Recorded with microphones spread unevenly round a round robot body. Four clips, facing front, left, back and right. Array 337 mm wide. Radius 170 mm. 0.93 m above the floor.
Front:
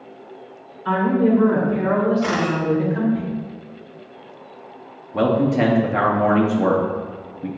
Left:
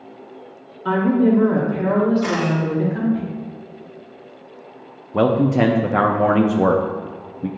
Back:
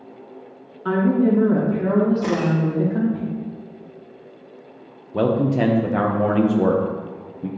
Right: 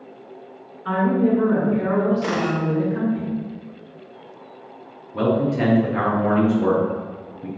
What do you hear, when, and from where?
0.8 s a woman speaking: 150° left, 2.5 m; by 3.2 s straight behind, 2 m
2.2 s a camera shutter: 165° right, 1.2 m
5.1 s a man speaking: 75° left, 0.7 m